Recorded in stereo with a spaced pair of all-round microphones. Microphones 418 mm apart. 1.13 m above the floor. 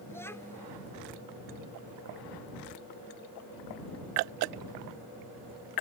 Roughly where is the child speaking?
Centre.